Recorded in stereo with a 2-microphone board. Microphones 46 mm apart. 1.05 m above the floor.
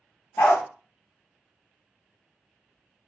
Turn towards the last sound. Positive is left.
turn(degrees=45)  # may be behind; listen again after turning